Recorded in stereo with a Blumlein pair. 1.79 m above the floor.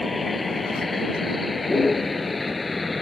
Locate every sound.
0.0 s a vehicle: 10° left